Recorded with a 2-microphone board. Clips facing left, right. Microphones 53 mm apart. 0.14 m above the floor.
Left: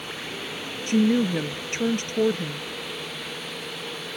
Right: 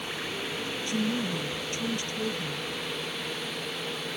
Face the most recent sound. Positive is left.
turn(degrees=55)  # may be behind; listen again after turning